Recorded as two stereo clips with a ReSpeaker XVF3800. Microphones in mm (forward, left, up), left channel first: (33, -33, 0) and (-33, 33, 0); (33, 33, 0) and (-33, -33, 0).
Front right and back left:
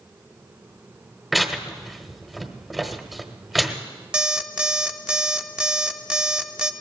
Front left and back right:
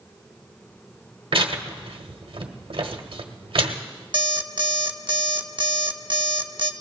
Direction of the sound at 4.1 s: 145° right.